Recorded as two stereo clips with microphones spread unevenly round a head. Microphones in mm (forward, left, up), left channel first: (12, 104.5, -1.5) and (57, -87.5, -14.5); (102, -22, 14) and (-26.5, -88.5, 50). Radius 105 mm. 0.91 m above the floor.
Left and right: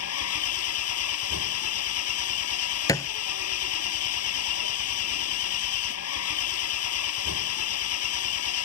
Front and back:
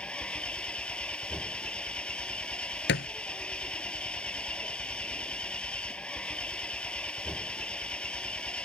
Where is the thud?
35° left.